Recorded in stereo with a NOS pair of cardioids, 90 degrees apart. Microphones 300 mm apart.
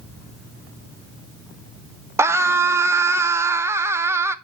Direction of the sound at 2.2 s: 10° right.